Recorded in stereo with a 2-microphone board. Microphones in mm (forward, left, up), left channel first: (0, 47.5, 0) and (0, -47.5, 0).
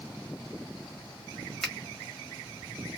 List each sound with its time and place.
1.6 s a finger snap: 5° left (ahead or behind), 1.4 m